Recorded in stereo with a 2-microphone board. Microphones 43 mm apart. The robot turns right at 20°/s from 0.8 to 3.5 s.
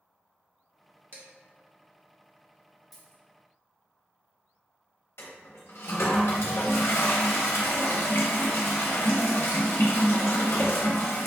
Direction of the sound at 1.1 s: 55° right (ahead or behind).